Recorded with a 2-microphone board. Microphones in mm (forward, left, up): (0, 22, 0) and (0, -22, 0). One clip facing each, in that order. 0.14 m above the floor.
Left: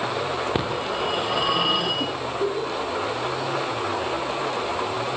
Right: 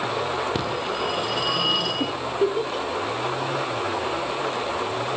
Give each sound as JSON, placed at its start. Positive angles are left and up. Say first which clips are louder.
{"t": 0.6, "sound": "a phone ringing", "louder": "left 1 dB", "side_deg": 20, "distance_m": 9.0}
{"t": 2.0, "sound": "a giggle", "louder": "right 2 dB", "side_deg": -50, "distance_m": 4.0}